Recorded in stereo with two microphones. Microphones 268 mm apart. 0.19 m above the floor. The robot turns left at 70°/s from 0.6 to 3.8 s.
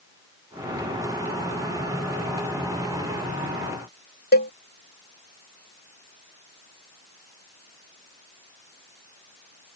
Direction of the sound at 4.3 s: 35° left (ahead or behind).